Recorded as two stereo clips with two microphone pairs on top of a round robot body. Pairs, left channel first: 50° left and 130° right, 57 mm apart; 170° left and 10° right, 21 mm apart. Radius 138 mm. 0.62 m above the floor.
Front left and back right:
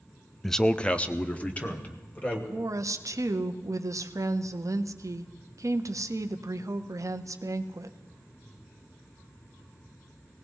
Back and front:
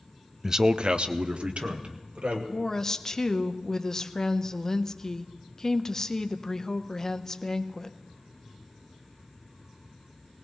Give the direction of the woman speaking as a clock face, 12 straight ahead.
4 o'clock.